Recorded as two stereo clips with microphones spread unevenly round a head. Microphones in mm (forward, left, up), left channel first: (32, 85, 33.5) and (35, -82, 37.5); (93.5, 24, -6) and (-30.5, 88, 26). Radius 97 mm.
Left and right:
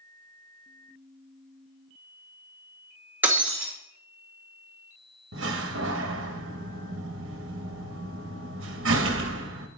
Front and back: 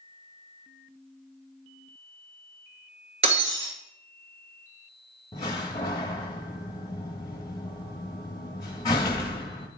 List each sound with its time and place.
3.2 s breaking glass: 170° right, 2 m
5.3 s a door slam: 100° right, 1.1 m